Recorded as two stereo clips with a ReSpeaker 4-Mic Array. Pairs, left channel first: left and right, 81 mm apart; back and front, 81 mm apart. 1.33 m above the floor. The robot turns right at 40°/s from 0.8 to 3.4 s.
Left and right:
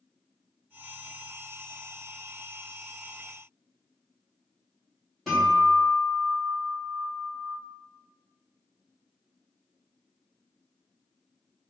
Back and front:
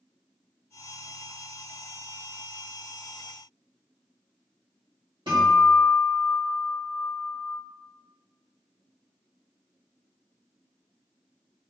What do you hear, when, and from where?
5.3 s a guitar: straight ahead, 1.6 m